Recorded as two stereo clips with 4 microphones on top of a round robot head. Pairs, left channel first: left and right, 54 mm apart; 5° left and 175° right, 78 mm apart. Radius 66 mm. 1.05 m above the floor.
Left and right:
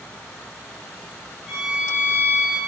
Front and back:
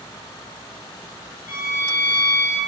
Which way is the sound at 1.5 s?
175° left.